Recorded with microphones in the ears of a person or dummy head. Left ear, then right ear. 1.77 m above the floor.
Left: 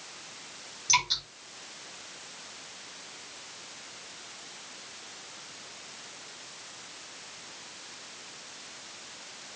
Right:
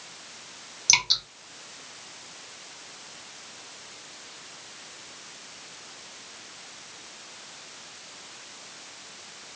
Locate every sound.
0.9 s dripping: 45° right (ahead or behind), 2 m